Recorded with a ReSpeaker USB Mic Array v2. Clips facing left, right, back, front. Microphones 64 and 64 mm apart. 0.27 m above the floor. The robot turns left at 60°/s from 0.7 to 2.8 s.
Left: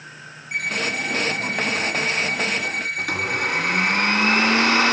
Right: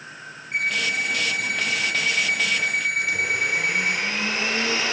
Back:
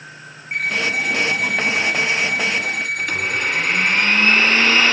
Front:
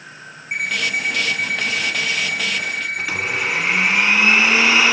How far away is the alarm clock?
About 8.5 m.